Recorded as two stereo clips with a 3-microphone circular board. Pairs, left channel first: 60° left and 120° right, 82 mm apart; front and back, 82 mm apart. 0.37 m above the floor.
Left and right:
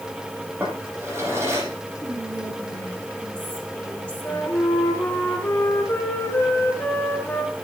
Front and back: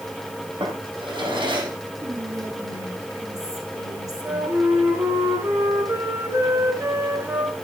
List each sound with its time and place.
0.6 s a drawer: 175° right, 8.5 m
2.0 s whispering: 135° left, 7.5 m
4.2 s a flute: 125° left, 4 m